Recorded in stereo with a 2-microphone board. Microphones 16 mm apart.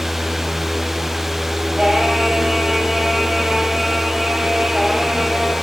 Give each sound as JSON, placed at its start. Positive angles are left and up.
{"t": 1.8, "sound": "singing", "side_deg": -80, "distance_m": 4.0}